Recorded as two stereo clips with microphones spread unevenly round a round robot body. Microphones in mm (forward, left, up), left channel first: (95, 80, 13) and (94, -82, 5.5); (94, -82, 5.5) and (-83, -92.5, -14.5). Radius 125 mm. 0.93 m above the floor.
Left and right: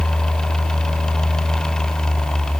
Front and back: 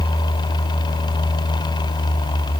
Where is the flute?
I don't hear a flute.